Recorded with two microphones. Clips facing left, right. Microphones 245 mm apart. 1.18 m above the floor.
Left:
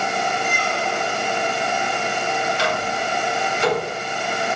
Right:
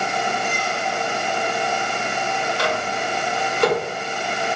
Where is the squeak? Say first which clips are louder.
Left 1 dB; 65° left (ahead or behind), 0.9 m.